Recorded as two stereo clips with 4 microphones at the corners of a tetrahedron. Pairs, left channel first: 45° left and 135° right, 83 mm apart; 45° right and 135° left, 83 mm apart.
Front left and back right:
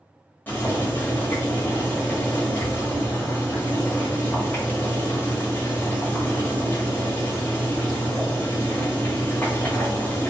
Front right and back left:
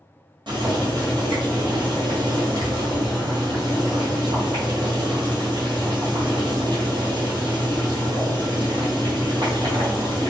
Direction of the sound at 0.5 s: 115° left.